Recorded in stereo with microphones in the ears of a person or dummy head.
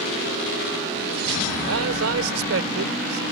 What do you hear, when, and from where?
1.7 s a man speaking: 90° right